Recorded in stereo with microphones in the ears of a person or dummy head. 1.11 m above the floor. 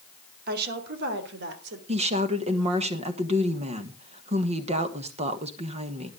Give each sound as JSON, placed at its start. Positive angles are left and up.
{"t": 0.5, "sound": "a woman speaking", "side_deg": -55, "distance_m": 2.5}
{"t": 1.9, "sound": "a woman speaking", "side_deg": -30, "distance_m": 1.4}